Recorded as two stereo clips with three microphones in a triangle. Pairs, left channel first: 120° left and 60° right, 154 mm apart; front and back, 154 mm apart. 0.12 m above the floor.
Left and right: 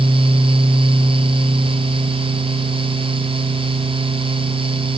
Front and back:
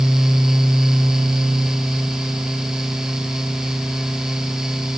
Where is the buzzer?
I don't hear a buzzer.